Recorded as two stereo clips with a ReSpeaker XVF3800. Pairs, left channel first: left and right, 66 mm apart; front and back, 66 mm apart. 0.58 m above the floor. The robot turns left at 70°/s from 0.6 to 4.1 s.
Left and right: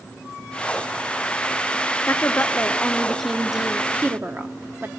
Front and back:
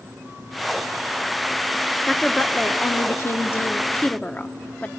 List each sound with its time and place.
2.1 s a woman speaking: 85° left, 0.9 m; by 4.9 s 55° right, 0.9 m